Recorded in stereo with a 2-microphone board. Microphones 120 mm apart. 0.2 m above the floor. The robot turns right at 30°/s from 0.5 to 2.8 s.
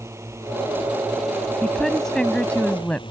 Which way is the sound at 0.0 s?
25° right.